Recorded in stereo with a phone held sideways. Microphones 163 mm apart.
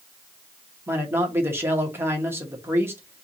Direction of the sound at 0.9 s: 15° right (ahead or behind).